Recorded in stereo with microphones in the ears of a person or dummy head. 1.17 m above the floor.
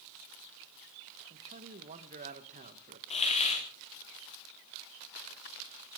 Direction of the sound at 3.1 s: 40° left (ahead or behind).